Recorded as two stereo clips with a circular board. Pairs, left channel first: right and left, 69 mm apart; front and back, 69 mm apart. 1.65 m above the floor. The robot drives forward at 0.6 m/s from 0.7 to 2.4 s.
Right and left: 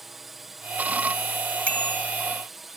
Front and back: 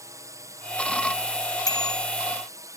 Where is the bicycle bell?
20° right.